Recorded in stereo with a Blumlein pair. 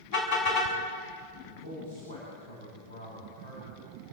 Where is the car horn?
45° left, 6.5 m.